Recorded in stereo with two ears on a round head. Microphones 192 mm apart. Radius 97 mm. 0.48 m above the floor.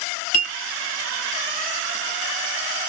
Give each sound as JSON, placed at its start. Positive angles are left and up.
{"t": 0.3, "sound": "a clink", "side_deg": 40, "distance_m": 1.4}